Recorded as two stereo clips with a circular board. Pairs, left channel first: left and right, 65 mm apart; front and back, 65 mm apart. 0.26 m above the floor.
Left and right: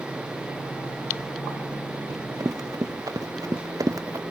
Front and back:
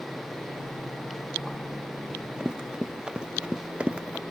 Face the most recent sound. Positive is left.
turn(degrees=-115)